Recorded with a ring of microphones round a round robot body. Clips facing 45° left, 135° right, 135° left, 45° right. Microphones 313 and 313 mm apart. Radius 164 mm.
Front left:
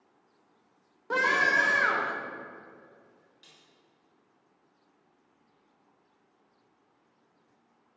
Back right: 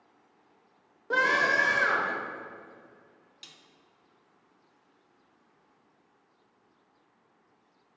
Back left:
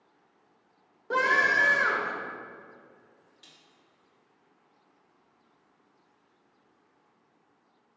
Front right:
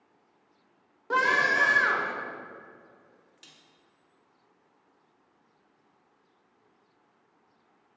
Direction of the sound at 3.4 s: 110° right.